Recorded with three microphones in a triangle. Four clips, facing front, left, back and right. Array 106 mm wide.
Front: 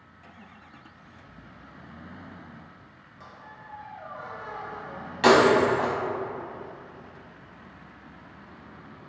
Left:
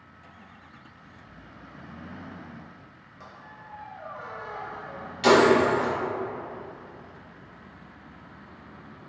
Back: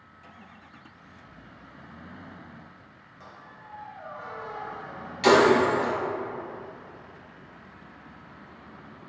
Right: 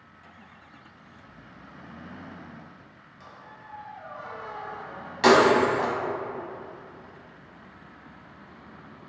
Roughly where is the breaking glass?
Ahead right.